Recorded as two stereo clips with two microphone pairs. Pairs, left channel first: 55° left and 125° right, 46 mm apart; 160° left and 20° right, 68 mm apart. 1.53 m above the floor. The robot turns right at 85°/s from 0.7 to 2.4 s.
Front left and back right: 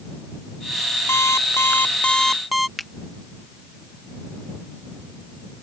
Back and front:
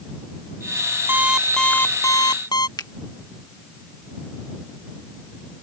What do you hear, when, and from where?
1.1 s an alarm clock: 35° left; by 2.7 s 145° left
2.8 s a finger snap: 145° left